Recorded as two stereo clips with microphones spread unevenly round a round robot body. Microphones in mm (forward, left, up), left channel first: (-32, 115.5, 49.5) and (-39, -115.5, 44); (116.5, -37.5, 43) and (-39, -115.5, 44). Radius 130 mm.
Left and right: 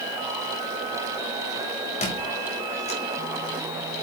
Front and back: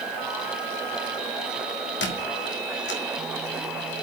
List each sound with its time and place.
2.0 s a squeak: 25° left, 1.5 m